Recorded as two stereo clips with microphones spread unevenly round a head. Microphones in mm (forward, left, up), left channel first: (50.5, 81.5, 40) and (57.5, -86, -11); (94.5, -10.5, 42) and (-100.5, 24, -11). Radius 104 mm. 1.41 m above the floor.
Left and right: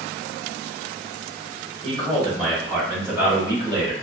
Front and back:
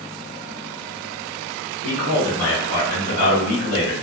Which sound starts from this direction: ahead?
A man speaking, at 1.8 s.